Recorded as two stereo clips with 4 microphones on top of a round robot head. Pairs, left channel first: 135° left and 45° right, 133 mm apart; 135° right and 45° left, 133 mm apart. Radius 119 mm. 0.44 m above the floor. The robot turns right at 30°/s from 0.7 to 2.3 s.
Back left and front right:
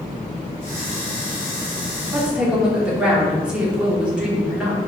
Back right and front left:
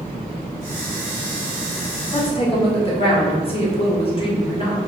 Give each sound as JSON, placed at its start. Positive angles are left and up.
{"t": 2.1, "sound": "a woman speaking", "azimuth_deg": -130, "distance_m": 1.6}